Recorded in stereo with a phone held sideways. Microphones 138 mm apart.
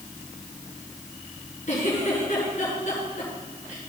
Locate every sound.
1.7 s a giggle: 60° left (ahead or behind), 5.5 m